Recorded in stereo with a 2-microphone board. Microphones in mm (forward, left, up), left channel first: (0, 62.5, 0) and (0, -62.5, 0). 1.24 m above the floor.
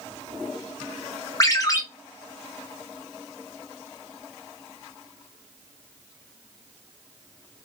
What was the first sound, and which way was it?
A ringtone, 30° left (ahead or behind).